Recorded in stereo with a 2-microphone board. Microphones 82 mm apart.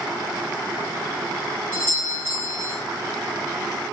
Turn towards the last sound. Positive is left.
turn(degrees=-30)  # may be behind; listen again after turning